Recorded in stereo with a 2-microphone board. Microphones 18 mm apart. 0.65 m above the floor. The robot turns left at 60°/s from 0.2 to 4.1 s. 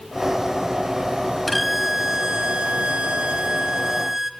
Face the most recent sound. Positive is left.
turn(degrees=-160)